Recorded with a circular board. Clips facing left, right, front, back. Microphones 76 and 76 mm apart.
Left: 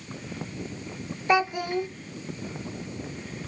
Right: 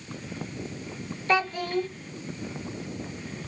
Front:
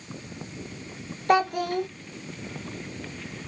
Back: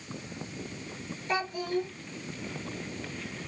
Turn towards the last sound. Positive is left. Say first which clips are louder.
# left 2 dB, front 8 dB
turn(degrees=15)